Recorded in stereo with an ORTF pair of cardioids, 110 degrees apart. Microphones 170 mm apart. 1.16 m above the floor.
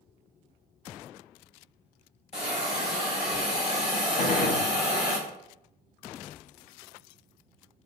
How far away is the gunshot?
About 0.9 m.